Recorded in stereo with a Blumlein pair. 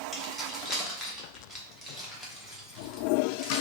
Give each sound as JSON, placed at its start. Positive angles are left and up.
{"t": 0.1, "sound": "keys jangling", "azimuth_deg": 0, "distance_m": 1.0}